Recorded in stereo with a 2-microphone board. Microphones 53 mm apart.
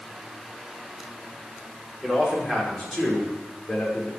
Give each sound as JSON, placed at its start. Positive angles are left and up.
{"t": 2.0, "sound": "a man speaking", "side_deg": 0, "distance_m": 5.0}